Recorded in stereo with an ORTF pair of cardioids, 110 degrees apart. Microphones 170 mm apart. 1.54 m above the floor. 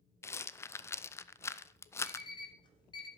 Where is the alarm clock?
25° left, 3 m.